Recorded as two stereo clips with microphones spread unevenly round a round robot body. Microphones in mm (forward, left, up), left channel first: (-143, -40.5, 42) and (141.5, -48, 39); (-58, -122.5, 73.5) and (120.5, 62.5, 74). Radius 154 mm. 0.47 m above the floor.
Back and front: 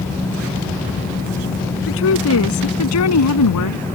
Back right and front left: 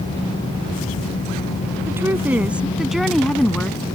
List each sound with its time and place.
1.9 s a woman speaking: 130° left; by 3.9 s 140° left